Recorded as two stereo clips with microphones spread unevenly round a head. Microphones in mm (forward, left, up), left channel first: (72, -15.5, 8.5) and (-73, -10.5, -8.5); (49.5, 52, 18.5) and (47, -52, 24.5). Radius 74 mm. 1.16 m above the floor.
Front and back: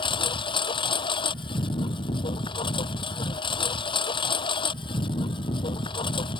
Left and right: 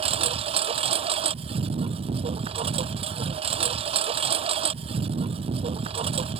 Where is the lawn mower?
60° right.